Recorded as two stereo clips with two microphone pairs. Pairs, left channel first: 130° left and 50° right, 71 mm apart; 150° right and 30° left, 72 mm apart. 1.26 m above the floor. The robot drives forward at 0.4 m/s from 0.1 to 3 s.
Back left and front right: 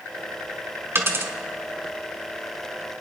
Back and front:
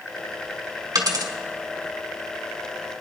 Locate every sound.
0.9 s a dropped coin: straight ahead, 1.8 m